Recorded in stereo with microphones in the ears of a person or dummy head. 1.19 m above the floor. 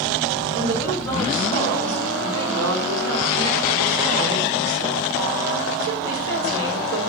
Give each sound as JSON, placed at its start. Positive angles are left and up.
{"t": 0.5, "sound": "a woman speaking", "side_deg": -75, "distance_m": 4.5}